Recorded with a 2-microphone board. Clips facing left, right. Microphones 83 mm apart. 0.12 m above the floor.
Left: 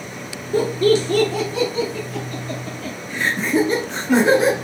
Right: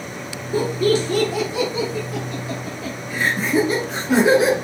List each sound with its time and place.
0.5 s laughter: 10° right (ahead or behind), 1.8 m; by 4.5 s 5° right (ahead or behind), 1.4 m